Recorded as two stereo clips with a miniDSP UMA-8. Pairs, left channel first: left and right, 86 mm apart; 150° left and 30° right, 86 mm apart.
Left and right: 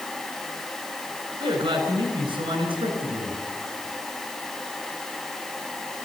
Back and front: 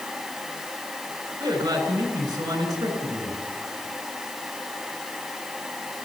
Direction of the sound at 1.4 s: 80° right.